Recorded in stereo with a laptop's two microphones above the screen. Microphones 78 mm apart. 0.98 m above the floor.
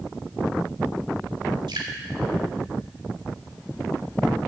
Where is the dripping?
85° right, 2 m.